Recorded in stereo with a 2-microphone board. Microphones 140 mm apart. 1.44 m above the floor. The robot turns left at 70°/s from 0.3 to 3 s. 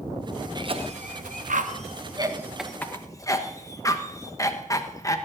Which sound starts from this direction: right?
A cough, at 0.6 s.